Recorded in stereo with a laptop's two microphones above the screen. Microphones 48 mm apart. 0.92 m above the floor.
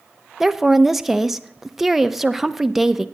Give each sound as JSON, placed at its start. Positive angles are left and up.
{"t": 0.4, "sound": "a woman speaking", "side_deg": -5, "distance_m": 0.6}